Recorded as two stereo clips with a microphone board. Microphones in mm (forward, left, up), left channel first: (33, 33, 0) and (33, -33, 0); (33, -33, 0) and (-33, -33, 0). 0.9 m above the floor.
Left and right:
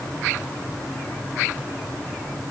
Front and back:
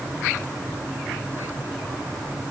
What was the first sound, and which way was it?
Only background noise.